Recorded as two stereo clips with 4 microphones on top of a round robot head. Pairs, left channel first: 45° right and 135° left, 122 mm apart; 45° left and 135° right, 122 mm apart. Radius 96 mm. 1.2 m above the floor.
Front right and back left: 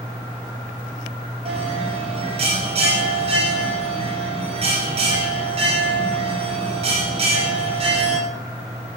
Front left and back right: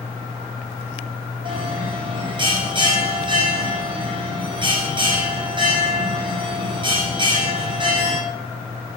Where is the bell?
175° left, 4 m.